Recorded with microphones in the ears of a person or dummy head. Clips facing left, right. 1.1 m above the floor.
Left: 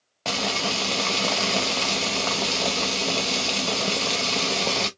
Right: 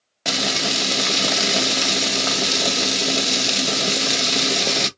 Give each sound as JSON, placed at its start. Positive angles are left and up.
{"t": 0.2, "sound": "frying", "side_deg": -15, "distance_m": 0.7}